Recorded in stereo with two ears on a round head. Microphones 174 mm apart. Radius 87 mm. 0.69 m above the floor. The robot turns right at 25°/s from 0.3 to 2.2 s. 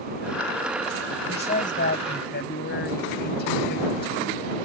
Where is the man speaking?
30° left (ahead or behind); by 4.3 s 55° left (ahead or behind).